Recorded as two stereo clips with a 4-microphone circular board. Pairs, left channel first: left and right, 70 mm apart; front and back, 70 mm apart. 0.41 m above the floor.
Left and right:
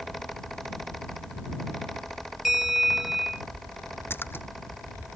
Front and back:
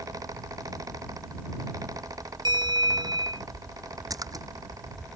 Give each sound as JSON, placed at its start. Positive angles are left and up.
{"t": 2.5, "sound": "a bell", "azimuth_deg": -175}
{"t": 4.1, "sound": "a splash", "azimuth_deg": 150}